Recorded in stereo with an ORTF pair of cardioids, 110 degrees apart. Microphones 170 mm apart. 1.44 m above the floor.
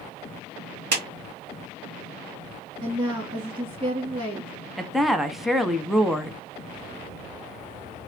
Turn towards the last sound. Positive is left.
turn(degrees=0)